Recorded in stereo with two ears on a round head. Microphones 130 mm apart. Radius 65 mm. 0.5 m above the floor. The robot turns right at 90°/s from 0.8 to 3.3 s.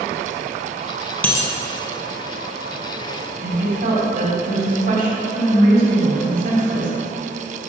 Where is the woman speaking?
70° right (ahead or behind), 3 m.